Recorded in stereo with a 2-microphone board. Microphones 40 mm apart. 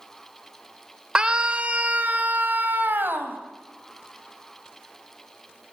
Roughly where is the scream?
Right.